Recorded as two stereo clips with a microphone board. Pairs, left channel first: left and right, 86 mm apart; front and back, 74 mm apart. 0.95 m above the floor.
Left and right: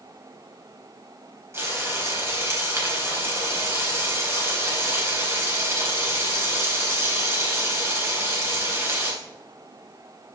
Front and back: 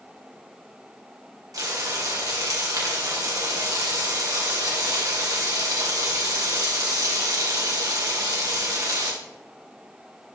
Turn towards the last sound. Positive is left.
turn(degrees=-145)